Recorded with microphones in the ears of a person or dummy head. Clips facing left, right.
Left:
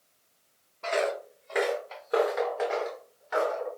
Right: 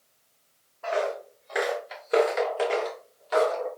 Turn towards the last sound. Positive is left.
turn(degrees=-55)  # may be behind; listen again after turning